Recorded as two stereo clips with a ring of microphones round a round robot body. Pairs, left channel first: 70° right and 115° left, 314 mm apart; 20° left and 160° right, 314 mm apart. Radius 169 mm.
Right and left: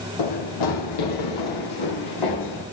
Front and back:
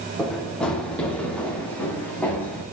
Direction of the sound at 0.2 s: 65° right.